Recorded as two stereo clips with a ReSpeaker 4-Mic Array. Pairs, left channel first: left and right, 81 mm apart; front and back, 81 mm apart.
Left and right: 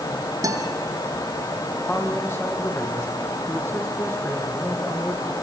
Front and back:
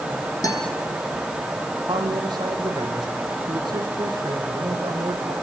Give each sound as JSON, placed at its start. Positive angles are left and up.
{"t": 0.4, "sound": "a guitar", "azimuth_deg": -45, "distance_m": 5.0}
{"t": 1.8, "sound": "a man speaking", "azimuth_deg": 150, "distance_m": 7.0}